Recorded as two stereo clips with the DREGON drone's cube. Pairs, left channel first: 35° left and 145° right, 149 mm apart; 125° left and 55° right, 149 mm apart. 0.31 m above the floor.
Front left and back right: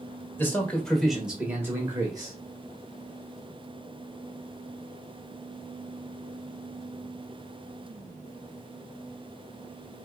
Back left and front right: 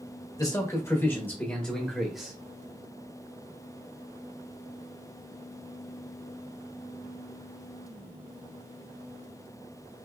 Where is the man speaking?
90° left, 1.3 m; by 2.4 s 140° right, 1.3 m.